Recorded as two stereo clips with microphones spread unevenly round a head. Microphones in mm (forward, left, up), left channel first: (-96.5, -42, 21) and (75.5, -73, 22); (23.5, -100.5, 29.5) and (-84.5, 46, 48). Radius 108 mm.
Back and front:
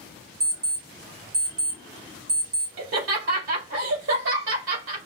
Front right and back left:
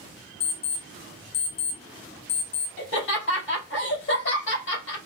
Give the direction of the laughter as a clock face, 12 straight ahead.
1 o'clock.